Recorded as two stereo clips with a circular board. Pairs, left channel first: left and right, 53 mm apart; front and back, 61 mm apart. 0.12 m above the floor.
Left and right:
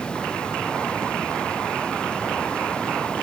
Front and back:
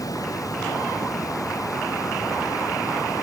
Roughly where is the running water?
Ahead.